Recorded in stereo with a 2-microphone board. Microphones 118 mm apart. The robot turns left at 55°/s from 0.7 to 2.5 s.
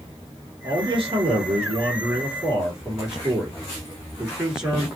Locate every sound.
0.6 s a man speaking: 70° right, 2.5 m; by 4.9 s 170° right, 2.5 m